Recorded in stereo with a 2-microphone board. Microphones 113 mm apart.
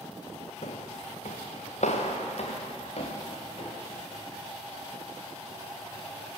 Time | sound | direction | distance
0.6 | footsteps | 70° left (ahead or behind) | 1.1 m